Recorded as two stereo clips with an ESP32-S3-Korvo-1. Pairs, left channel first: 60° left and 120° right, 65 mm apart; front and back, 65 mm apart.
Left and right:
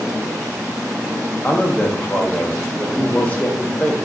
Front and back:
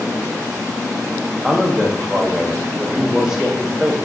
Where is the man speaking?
105° left, 0.7 m.